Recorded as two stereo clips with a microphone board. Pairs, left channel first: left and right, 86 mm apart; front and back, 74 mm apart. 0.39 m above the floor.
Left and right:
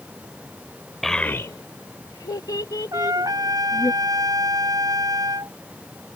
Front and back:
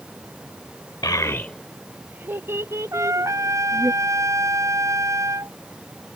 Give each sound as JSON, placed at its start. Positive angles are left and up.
{"t": 1.0, "sound": "a child speaking", "azimuth_deg": 5}
{"t": 2.9, "sound": "a trumpet", "azimuth_deg": -135}